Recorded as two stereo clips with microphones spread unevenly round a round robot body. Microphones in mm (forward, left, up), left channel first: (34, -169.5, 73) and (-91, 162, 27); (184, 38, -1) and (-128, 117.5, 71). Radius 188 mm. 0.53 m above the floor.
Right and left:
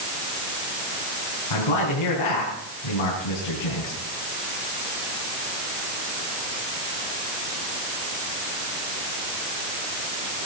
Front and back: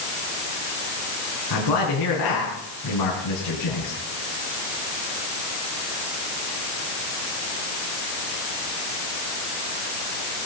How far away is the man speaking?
About 5 m.